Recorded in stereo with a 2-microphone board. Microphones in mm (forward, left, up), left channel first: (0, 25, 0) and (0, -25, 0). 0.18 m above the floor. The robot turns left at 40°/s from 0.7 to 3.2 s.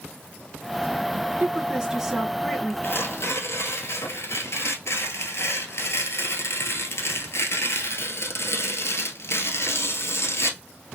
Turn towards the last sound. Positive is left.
turn(degrees=60)  # may be behind; listen again after turning